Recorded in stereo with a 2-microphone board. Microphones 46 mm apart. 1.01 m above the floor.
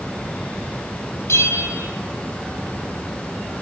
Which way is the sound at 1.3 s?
80° left.